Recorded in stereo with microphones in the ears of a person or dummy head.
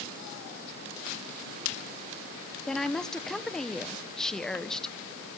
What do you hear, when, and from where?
2.7 s a woman speaking: 5° left (ahead or behind), 1.4 m